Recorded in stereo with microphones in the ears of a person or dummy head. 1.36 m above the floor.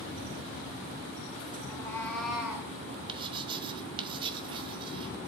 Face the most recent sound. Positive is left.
turn(degrees=-30)  # may be behind; listen again after turning